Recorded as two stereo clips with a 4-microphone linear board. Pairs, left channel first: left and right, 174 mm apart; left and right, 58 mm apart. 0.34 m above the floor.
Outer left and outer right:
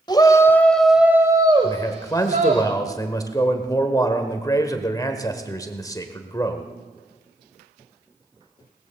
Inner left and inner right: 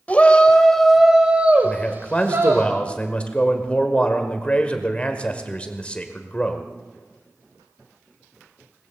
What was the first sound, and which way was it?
A shout, 25° left (ahead or behind).